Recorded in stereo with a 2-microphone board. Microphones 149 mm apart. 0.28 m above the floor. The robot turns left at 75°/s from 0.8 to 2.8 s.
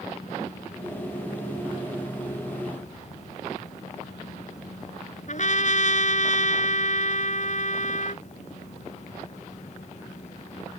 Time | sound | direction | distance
5.3 | a trumpet | 55° left (ahead or behind) | ?